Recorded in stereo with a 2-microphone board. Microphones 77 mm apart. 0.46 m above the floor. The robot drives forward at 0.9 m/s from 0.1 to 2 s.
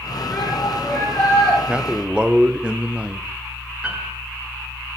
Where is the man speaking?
15° right (ahead or behind), 1.1 m; by 3.3 s 10° right (ahead or behind), 1.2 m.